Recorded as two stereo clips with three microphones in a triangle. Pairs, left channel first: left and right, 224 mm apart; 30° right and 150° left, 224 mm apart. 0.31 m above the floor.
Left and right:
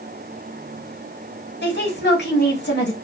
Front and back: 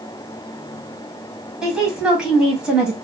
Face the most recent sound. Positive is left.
turn(degrees=65)